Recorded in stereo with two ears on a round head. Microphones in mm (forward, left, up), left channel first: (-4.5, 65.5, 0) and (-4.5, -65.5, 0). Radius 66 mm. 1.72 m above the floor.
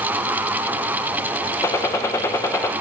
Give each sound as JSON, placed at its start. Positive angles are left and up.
{"t": 1.6, "sound": "a gunshot", "side_deg": 20, "distance_m": 0.5}